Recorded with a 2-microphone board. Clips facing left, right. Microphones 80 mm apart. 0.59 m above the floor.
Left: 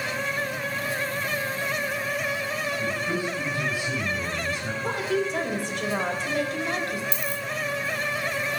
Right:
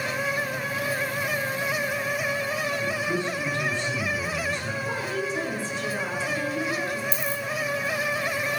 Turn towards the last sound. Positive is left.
turn(degrees=65)  # may be behind; listen again after turning